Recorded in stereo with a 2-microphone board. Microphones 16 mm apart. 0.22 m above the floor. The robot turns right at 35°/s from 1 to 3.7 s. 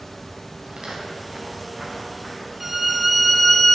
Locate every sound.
0.7 s footsteps: 50° right (ahead or behind), 2.5 m; by 2.5 s 30° left (ahead or behind), 4 m
2.6 s a violin: 20° right, 0.6 m; by 3.8 s 20° left, 0.6 m